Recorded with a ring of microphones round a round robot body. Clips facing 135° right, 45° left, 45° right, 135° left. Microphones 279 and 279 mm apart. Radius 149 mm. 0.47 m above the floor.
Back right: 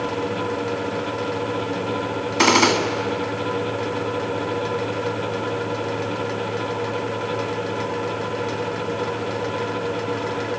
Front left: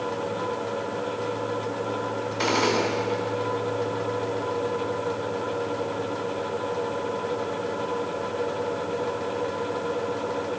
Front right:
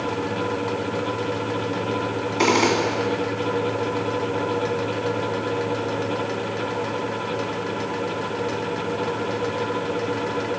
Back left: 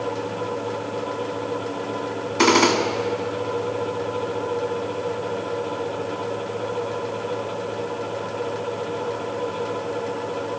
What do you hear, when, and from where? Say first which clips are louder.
2.4 s a gunshot: back right 6 dB, back left 2 dB; 155° right, 2 m